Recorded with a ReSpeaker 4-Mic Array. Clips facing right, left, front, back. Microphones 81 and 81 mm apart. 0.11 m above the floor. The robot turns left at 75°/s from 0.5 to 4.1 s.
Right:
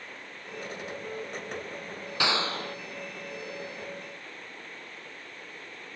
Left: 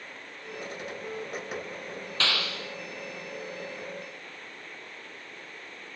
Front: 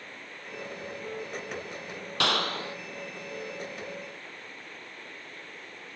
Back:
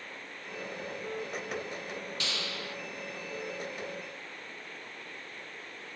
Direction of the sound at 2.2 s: 15° right.